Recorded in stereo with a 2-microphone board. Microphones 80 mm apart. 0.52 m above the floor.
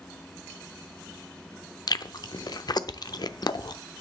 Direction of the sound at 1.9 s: 55° left (ahead or behind).